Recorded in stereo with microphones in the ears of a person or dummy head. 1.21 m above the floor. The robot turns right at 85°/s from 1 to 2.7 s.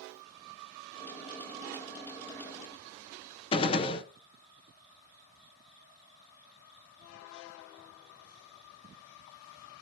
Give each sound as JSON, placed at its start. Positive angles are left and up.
{"t": 3.5, "sound": "a gunshot", "side_deg": 25, "distance_m": 0.7}